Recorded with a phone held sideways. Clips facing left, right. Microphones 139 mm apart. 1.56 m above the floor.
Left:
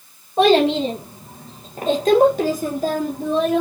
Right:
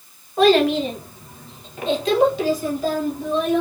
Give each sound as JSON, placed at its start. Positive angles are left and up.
{"t": 0.4, "sound": "a child speaking", "side_deg": 20, "distance_m": 1.3}